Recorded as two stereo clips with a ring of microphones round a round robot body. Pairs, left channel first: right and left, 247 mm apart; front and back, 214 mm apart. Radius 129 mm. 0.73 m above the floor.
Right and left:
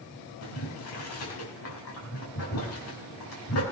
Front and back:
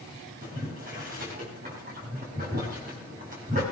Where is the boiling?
120° right, 5.5 m.